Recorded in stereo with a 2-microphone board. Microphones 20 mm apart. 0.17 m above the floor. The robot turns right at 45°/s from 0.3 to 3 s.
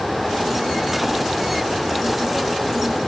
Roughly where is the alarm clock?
No alarm clock in this recording.